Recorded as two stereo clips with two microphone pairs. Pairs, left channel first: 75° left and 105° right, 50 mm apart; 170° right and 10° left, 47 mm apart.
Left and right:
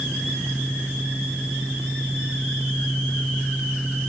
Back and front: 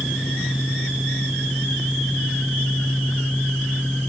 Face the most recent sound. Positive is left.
No sound to turn to.